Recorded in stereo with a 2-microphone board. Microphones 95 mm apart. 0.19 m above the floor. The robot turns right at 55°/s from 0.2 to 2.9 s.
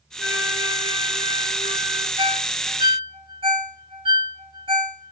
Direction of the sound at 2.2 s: 55° right (ahead or behind).